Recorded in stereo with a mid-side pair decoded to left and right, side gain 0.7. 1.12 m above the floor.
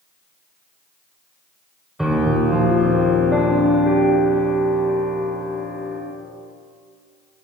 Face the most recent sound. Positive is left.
turn(degrees=-5)